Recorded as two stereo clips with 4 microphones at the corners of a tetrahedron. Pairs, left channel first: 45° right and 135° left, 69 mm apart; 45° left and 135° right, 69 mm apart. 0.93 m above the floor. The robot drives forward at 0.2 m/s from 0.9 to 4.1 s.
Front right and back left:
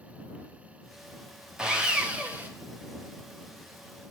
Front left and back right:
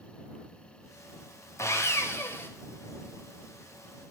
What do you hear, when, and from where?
1.6 s sawing: 65° left, 0.8 m; by 2.5 s 80° left, 0.8 m